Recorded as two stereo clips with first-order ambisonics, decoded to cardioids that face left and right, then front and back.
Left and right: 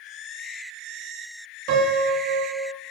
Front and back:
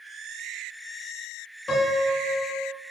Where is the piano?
70° right, 2.5 m.